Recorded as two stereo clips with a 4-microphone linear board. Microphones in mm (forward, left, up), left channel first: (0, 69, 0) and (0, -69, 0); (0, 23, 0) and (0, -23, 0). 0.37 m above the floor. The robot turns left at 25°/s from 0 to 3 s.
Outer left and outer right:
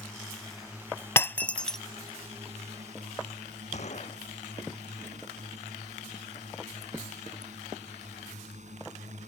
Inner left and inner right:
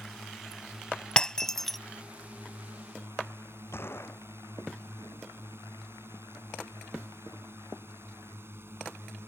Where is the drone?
10° left; by 9.3 s 65° right.